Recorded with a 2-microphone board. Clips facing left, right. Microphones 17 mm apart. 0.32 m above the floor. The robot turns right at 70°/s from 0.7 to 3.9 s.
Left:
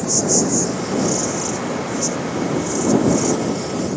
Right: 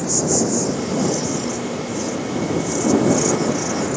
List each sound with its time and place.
0.0 s an insect: 20° left; by 4.0 s 115° right